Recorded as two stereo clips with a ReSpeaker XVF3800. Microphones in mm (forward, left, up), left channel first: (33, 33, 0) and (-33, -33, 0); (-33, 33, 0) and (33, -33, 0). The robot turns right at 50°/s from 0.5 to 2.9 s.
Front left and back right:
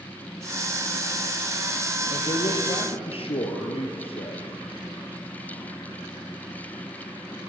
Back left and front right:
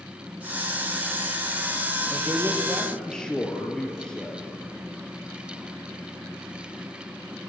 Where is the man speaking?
15° left, 4 m; by 4.5 s 55° left, 4 m.